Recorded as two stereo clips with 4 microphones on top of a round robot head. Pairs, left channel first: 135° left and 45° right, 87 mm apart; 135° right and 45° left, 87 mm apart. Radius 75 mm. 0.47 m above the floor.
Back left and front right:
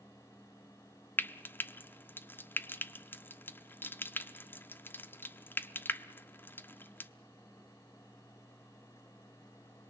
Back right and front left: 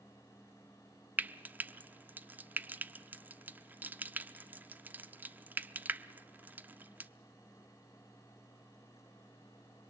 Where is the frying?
95° left, 0.9 m.